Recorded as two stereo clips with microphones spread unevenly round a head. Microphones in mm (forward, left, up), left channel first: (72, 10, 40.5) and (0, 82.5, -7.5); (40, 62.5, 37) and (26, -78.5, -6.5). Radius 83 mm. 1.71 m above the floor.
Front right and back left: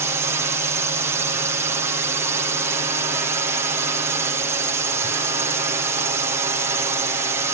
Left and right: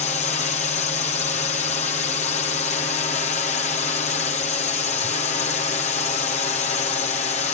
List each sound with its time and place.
0.0 s a drone: 135° left